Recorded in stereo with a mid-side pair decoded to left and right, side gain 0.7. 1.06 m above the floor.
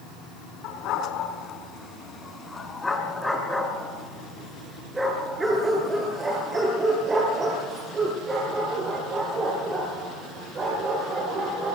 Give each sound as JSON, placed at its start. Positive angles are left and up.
{"t": 0.6, "sound": "a dog barking", "azimuth_deg": 60, "distance_m": 4.0}